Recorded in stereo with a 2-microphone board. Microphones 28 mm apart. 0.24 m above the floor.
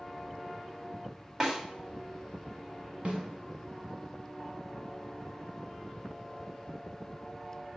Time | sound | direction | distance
1.4 | a snare drum | 20° right (ahead or behind) | 1.8 m
3.0 | a snare drum | 55° right (ahead or behind) | 1.4 m